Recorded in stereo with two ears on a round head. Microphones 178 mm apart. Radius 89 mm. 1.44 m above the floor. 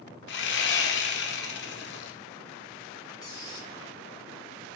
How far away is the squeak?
About 1.4 m.